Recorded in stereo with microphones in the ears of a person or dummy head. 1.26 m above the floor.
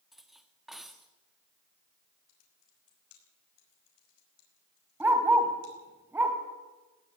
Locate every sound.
0.1 s cutlery clinking: 5° right (ahead or behind), 1.4 m
2.3 s typing on a keyboard: 85° left, 6 m
5.0 s a dog barking: 10° right (ahead or behind), 3 m